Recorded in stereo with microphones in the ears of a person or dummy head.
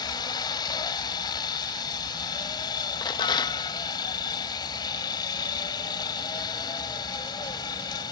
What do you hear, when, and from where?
0.0 s a helicopter: 20° left (ahead or behind)
3.0 s a rattle: 25° left (ahead or behind)